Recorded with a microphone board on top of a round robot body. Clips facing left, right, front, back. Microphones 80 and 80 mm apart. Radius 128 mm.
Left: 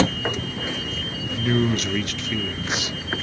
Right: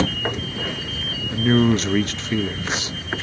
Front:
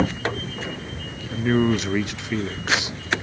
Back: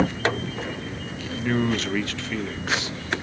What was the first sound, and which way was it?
A man speaking, 60° right.